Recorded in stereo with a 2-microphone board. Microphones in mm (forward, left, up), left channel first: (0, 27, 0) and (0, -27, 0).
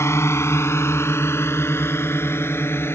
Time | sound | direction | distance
0.0 | a drone | 55° left (ahead or behind) | ?